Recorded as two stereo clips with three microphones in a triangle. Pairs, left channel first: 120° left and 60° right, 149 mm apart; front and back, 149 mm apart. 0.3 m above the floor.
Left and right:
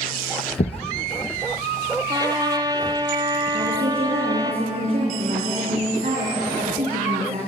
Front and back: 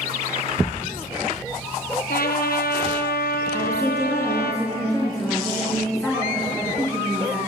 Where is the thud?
80° left, 1.5 m.